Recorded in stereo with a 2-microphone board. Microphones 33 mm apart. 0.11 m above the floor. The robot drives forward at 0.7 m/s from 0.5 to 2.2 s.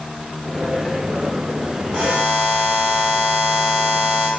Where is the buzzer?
15° right (ahead or behind), 3.5 m.